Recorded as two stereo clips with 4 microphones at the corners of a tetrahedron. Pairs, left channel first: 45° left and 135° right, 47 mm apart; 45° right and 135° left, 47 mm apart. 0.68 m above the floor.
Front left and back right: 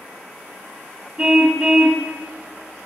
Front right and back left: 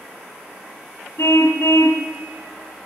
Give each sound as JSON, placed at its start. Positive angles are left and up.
{"t": 1.2, "sound": "a car horn", "azimuth_deg": -60, "distance_m": 2.5}